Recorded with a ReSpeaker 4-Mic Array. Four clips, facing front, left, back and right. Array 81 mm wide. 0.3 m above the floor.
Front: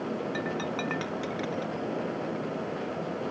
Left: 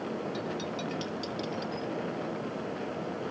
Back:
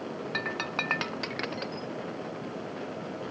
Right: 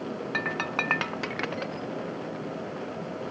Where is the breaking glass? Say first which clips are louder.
Right 4 dB, front 2 dB; 105° right.